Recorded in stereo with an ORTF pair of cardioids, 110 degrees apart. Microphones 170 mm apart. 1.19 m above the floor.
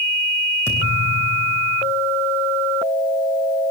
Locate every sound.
0.7 s a thud: 15° left, 5.5 m